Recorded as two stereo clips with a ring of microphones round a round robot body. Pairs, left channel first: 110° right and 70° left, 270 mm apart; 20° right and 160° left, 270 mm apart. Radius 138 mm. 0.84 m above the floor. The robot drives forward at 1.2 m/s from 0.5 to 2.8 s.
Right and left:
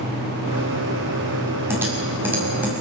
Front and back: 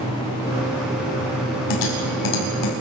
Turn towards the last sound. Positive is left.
turn(degrees=-20)